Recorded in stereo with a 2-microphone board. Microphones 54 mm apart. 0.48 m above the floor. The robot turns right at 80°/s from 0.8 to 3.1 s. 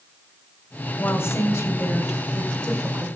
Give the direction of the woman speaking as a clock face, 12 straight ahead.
11 o'clock.